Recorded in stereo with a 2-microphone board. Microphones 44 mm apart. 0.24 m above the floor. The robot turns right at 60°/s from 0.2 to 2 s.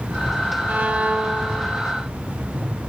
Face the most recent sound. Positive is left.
turn(degrees=0)